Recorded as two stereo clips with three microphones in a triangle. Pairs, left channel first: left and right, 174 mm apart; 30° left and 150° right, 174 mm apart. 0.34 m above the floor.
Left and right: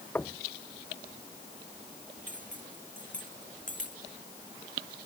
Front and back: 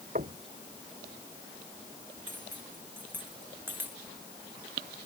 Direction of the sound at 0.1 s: 170° left.